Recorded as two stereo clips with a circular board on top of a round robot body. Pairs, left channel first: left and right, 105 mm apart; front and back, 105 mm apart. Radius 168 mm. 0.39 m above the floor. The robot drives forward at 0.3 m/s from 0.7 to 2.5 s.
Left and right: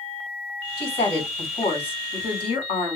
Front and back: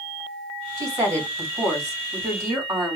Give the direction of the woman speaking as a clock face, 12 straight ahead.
8 o'clock.